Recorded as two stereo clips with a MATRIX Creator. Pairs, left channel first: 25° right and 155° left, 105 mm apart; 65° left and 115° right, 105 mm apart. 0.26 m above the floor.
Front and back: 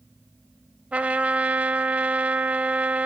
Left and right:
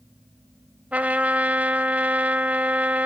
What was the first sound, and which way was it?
A trumpet, 155° right.